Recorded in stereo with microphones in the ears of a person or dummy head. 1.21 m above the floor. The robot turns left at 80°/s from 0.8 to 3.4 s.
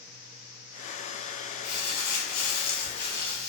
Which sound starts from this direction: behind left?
Crumpling, at 1.6 s.